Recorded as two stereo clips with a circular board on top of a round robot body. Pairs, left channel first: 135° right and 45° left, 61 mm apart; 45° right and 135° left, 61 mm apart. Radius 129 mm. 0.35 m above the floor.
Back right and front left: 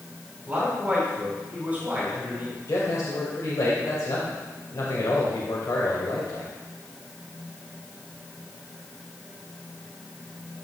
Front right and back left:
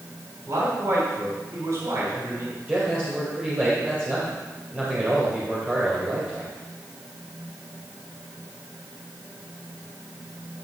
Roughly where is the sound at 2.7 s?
Behind.